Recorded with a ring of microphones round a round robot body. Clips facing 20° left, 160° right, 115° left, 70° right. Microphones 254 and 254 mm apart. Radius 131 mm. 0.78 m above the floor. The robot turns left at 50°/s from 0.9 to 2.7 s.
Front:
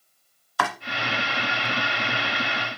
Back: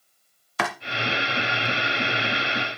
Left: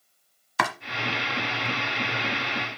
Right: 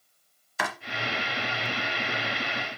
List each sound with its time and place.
0.6 s chopping: 135° left, 1.1 m